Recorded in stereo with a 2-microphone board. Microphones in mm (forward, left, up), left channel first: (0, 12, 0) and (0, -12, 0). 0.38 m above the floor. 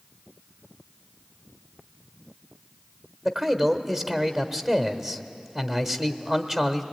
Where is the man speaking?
20° right (ahead or behind), 1.2 m.